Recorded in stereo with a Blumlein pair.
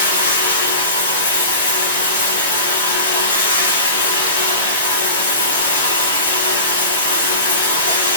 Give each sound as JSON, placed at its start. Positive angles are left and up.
{"t": 0.0, "sound": "running water", "azimuth_deg": 65, "distance_m": 5.5}